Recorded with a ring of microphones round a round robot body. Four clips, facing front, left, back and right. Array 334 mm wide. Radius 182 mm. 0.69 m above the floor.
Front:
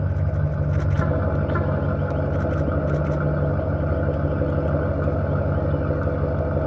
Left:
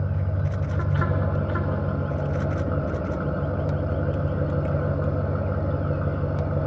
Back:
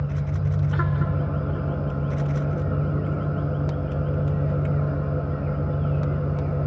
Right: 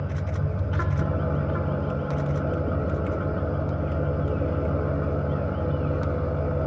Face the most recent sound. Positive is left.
turn(degrees=5)